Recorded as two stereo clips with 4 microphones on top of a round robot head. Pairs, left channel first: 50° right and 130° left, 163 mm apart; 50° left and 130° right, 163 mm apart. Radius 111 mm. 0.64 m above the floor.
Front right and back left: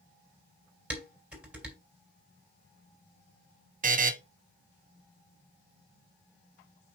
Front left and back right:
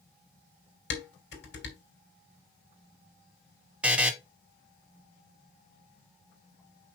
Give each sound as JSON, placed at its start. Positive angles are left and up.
{"t": 0.9, "sound": "dishes clattering", "azimuth_deg": 50, "distance_m": 3.5}
{"t": 3.8, "sound": "a buzzer", "azimuth_deg": 145, "distance_m": 1.5}